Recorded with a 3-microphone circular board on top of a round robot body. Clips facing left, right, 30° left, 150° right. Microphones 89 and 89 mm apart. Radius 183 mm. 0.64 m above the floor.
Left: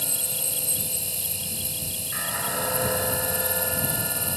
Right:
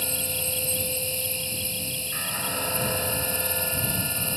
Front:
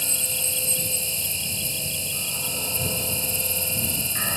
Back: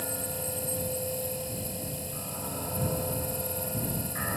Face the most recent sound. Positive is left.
turn(degrees=30)